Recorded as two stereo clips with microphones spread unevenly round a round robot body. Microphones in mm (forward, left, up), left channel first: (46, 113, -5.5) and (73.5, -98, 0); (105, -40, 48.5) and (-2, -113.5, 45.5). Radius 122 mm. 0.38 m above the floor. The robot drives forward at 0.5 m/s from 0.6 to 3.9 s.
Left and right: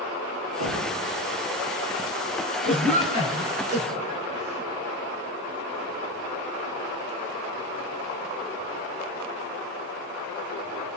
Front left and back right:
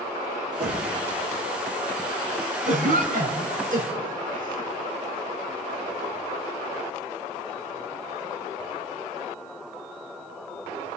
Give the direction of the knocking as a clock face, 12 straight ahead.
3 o'clock.